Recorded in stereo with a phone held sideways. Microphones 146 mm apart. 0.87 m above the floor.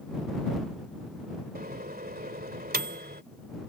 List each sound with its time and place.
1.6 s a microwave: 85° right